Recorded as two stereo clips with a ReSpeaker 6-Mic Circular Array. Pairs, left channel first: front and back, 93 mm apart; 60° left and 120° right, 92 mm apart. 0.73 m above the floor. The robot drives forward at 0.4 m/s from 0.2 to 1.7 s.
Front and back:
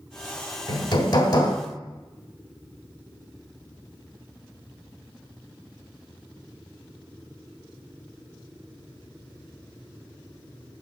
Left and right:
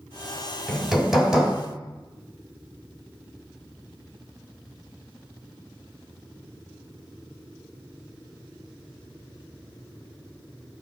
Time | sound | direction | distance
0.7 | hammering | 30° right | 1.6 m